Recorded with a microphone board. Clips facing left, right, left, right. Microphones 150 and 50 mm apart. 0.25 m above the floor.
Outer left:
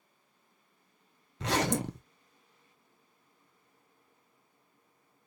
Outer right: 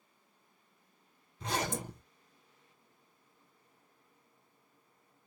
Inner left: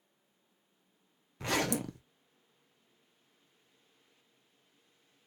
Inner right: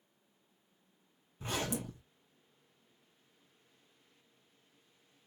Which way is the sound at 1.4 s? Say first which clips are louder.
Outer left 6 dB, inner left 5 dB; 85° left.